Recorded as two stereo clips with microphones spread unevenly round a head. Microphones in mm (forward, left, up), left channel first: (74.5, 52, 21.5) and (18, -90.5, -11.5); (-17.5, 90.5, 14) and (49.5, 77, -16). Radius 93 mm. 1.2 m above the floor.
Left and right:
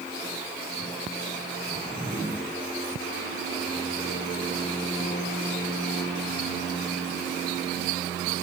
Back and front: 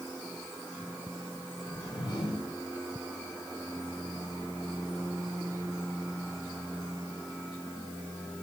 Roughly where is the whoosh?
Behind.